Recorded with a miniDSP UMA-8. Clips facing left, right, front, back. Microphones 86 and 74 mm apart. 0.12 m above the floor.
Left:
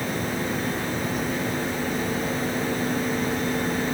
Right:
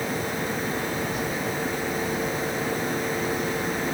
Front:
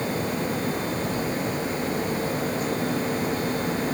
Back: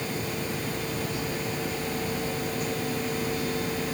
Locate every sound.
Only background noise.